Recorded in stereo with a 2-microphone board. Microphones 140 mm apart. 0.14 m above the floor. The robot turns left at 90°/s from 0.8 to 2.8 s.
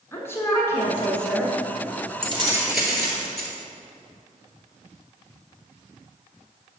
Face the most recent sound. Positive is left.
turn(degrees=180)